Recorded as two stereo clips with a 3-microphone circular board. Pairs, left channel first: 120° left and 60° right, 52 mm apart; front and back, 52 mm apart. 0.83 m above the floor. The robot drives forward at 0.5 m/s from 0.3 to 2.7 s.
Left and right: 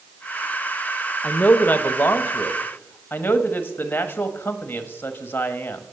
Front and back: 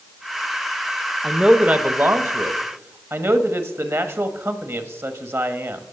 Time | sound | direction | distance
1.2 | a man speaking | 110° left | 0.5 m